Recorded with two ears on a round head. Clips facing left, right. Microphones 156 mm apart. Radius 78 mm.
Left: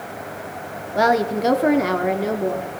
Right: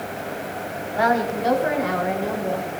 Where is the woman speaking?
50° left (ahead or behind), 1.6 m; by 2.7 s 55° left (ahead or behind), 2 m.